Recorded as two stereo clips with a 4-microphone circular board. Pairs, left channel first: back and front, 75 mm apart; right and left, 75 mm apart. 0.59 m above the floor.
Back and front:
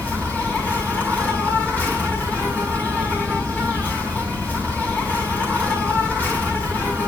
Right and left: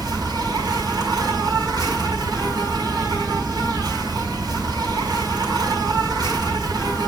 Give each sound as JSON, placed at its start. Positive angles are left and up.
{"t": 0.0, "sound": "an insect", "azimuth_deg": 110, "distance_m": 4.5}